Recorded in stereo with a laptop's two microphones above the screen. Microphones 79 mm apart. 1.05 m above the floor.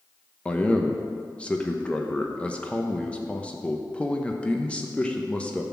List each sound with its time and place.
0.5 s a man speaking: 15° left (ahead or behind), 0.9 m